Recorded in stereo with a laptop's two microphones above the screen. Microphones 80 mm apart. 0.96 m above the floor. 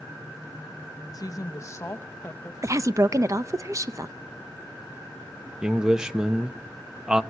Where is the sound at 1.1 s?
50° left (ahead or behind), 1.1 m; by 2.5 s 20° left (ahead or behind), 1.3 m.